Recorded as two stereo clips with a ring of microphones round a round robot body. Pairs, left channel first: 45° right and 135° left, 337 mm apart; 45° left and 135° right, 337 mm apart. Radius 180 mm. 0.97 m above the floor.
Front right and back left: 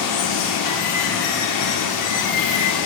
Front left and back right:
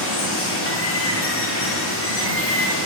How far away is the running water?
About 1.8 m.